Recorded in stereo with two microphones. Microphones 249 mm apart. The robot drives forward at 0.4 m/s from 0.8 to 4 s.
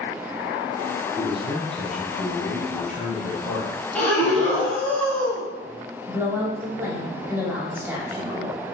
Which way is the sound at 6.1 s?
10° right (ahead or behind).